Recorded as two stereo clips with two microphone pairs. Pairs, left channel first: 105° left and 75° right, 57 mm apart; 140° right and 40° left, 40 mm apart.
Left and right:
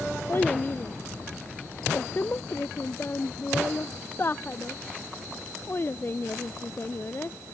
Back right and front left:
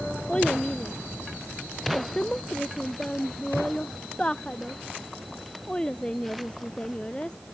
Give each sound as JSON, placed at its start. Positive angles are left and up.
{"t": 0.3, "sound": "a child speaking", "azimuth_deg": 155}